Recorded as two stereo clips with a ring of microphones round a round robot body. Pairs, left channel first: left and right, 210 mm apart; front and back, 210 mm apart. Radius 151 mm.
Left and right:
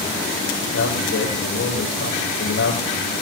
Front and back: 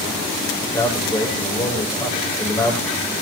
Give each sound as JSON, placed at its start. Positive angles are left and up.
{"t": 0.6, "sound": "a man speaking", "azimuth_deg": 70, "distance_m": 9.5}